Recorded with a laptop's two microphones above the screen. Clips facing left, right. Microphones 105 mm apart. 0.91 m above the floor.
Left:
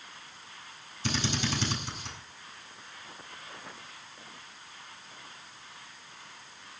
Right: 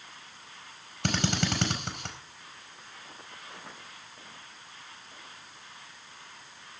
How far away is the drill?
About 4.5 m.